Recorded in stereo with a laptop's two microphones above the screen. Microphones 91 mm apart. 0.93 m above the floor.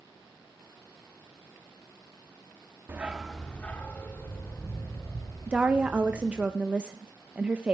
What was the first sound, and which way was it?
A dog barking, 25° right (ahead or behind).